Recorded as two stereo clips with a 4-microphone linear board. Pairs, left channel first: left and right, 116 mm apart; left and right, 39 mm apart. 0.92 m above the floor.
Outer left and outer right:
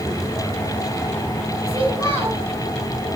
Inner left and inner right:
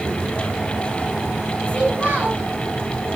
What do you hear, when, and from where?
1.7 s a child speaking: 55° right (ahead or behind), 4 m